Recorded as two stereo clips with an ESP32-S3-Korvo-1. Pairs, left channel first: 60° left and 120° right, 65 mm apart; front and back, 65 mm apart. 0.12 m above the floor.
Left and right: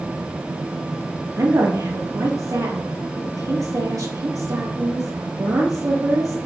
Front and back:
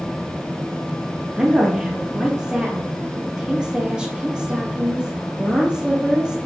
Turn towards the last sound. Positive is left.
turn(degrees=-105)